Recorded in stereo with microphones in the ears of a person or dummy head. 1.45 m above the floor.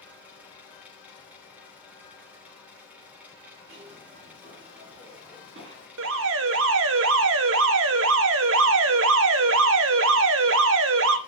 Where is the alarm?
65° right (ahead or behind), 1.1 m.